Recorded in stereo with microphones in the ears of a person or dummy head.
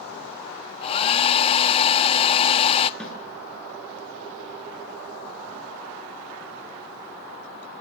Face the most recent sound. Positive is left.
turn(degrees=10)  # may be behind; listen again after turning